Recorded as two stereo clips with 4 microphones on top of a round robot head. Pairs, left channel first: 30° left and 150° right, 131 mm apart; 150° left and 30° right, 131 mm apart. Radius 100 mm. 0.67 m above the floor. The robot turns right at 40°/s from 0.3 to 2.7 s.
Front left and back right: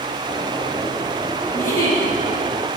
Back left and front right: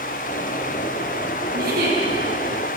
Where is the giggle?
50° right, 4 m; by 2.0 s 30° right, 4 m.